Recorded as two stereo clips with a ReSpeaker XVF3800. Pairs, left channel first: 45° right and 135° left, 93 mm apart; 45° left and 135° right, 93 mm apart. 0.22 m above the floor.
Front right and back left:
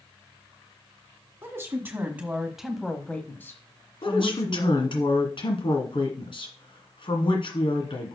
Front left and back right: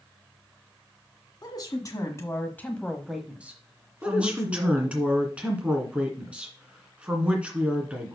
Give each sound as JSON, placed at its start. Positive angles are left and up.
{"t": 1.4, "sound": "a woman speaking", "azimuth_deg": 80, "distance_m": 1.6}
{"t": 4.0, "sound": "a woman speaking", "azimuth_deg": -60, "distance_m": 2.0}